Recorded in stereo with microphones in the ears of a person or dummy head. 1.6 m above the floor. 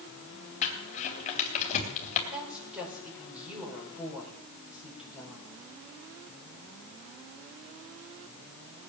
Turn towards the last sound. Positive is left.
turn(degrees=-10)  # may be behind; listen again after turning